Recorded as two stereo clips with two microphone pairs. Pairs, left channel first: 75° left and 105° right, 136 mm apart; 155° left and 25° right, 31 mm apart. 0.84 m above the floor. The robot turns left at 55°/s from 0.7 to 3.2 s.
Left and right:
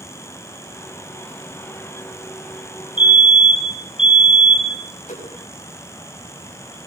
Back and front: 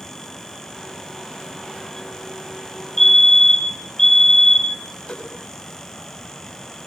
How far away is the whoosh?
About 6 m.